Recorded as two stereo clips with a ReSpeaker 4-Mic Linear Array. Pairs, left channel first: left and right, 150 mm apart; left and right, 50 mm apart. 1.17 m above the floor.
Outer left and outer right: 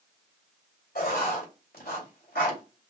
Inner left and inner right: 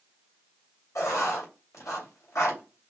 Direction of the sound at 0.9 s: 85° left.